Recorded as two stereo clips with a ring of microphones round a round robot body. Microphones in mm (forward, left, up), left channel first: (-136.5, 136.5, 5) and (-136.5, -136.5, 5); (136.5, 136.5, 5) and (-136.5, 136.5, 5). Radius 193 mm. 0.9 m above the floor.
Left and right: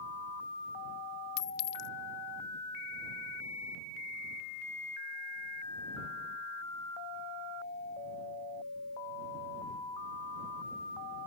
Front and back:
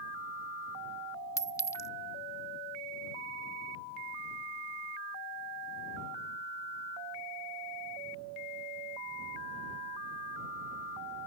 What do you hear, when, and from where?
1.4 s a clink: 80° left